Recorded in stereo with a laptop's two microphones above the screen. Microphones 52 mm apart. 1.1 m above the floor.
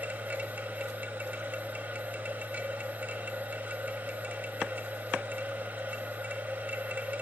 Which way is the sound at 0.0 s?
30° right (ahead or behind).